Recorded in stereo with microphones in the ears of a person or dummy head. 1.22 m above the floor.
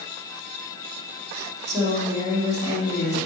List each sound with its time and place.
1.7 s a woman speaking: 20° right (ahead or behind), 2.5 m